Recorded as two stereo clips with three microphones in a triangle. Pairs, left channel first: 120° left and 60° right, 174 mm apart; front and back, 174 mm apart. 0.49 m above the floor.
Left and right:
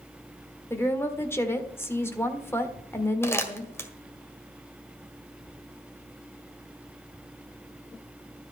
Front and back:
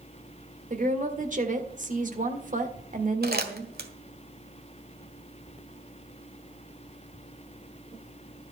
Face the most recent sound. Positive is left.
turn(degrees=-165)